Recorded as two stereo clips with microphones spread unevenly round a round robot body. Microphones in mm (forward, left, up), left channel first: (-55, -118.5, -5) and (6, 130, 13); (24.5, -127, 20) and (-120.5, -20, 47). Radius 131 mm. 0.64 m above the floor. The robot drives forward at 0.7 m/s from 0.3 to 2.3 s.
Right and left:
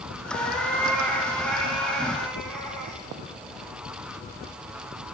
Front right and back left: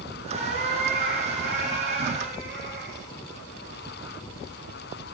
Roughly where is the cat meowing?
Behind.